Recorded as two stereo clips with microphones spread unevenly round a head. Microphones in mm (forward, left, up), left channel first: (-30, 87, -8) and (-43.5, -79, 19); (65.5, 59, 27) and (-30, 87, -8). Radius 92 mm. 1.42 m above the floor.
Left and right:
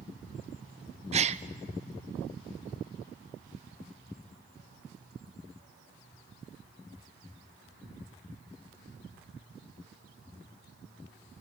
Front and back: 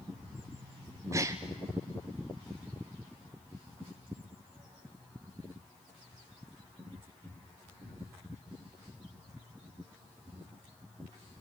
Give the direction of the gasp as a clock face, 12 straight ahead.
5 o'clock.